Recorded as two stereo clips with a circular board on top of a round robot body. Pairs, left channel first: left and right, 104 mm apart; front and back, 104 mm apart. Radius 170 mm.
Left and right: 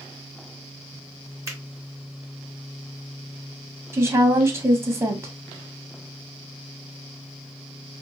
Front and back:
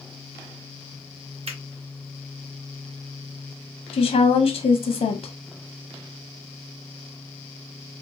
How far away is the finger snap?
About 1.5 m.